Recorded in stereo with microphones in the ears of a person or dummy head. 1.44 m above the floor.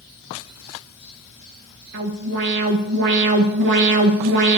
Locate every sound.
1.9 s an alarm: 65° right (ahead or behind), 2 m